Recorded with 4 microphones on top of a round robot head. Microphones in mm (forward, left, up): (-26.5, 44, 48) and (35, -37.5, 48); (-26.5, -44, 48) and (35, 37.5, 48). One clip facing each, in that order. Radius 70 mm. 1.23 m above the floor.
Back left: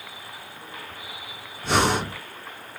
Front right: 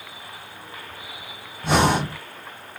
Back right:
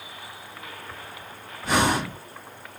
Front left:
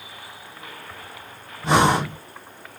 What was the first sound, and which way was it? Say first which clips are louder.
Breathing: front right 3 dB, front left 5 dB; 10° right.